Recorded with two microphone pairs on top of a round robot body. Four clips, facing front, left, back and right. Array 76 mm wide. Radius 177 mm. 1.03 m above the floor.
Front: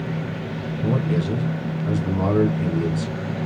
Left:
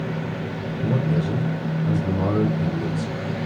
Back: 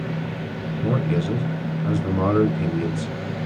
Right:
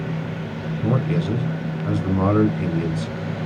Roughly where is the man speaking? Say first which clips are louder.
Right 1 dB, even; behind right.